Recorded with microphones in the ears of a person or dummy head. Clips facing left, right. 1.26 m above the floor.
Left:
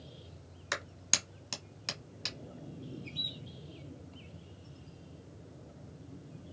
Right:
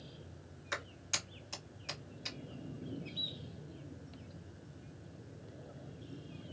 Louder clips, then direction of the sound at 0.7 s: Left 3 dB; 75° left (ahead or behind).